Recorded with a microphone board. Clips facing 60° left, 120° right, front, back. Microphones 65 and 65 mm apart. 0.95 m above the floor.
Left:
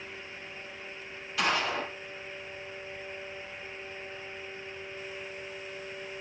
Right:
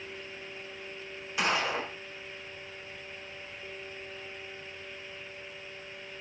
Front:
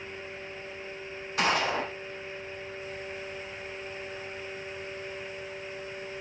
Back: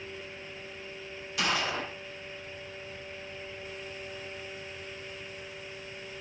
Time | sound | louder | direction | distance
1.4 | a gunshot | even, front 4 dB | 50° right | 4.5 m